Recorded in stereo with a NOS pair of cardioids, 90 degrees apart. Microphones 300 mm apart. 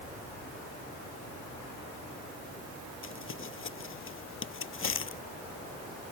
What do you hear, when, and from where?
3.0 s crumpling: 45° left